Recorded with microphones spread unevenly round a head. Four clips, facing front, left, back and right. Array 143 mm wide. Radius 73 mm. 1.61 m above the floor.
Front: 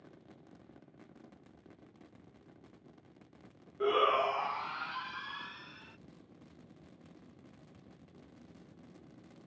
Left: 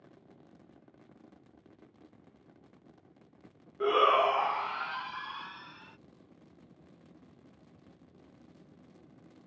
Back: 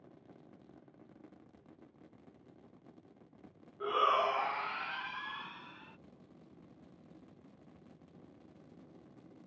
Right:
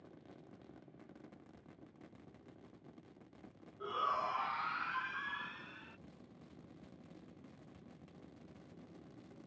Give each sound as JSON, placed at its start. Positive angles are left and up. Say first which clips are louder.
{"t": 3.8, "sound": "a shout", "louder": "left 13 dB, front 2 dB", "azimuth_deg": 50}